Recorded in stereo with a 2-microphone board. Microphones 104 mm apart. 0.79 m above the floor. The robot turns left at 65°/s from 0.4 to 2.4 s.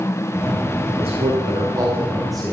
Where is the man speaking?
90° right, 2.5 m; by 2.5 s 175° left, 2.5 m.